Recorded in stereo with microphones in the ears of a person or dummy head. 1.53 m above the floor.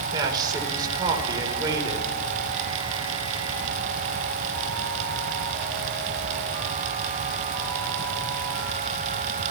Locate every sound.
0.1 s a man speaking: 20° right (ahead or behind), 4.5 m